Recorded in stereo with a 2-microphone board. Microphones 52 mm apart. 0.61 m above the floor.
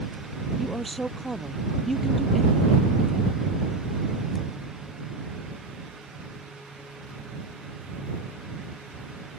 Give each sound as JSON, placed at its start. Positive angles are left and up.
{"t": 0.6, "sound": "a woman speaking", "side_deg": 0}